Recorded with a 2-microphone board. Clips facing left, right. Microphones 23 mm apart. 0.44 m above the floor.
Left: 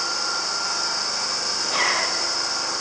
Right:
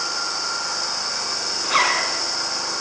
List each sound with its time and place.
1.6 s a zipper: 45° right (ahead or behind), 5.5 m